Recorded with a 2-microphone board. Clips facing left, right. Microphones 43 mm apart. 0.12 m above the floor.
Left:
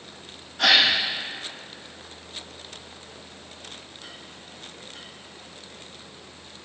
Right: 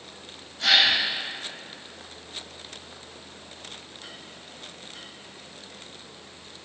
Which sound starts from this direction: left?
A gasp, at 0.6 s.